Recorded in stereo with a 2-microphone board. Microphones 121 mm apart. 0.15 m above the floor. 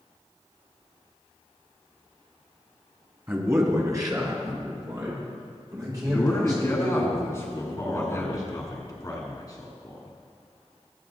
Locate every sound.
3.3 s a man speaking: 20° right (ahead or behind), 1.3 m; by 7.0 s 30° right (ahead or behind), 6 m
6.0 s a man speaking: 25° left (ahead or behind), 1.3 m
7.6 s a man speaking: 30° left (ahead or behind), 1.2 m